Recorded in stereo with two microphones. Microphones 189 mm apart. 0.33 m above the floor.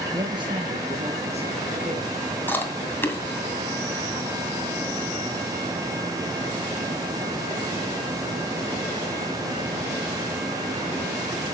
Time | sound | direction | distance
0.1 | a man speaking | 20° right (ahead or behind) | 5 m
2.5 | chewing | 10° left (ahead or behind) | 2 m